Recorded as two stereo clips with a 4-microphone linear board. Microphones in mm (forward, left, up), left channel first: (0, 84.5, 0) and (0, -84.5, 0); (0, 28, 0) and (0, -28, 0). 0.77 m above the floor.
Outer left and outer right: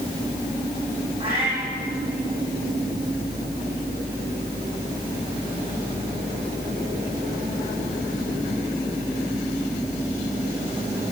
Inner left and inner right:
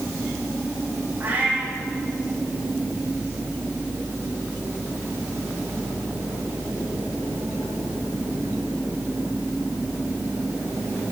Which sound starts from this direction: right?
A cat meowing, at 1.2 s.